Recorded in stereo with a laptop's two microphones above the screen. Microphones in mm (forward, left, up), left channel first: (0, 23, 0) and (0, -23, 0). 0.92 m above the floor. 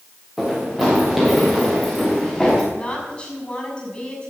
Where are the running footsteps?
5° right (ahead or behind), 5.5 m; by 2.6 s 5° left (ahead or behind), 6 m.